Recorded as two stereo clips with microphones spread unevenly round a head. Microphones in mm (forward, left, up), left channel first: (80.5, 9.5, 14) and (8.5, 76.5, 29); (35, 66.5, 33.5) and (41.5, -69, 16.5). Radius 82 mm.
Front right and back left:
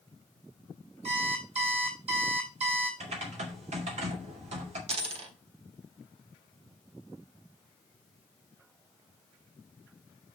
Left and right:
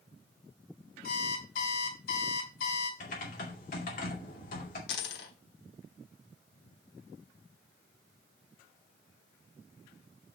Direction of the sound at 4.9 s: 120° left.